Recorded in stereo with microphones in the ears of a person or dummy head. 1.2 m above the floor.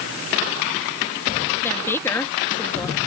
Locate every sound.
1.6 s a woman speaking: 10° left (ahead or behind)